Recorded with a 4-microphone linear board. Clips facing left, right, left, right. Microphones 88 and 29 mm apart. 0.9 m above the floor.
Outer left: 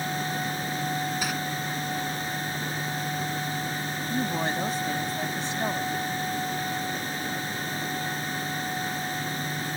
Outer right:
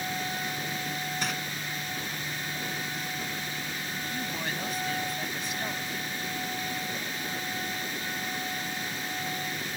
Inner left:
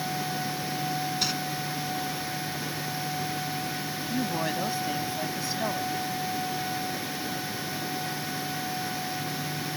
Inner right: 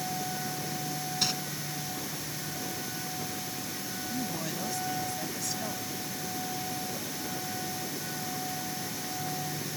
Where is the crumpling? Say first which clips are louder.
Outer left 2 dB, inner right 1 dB; 5° left (ahead or behind).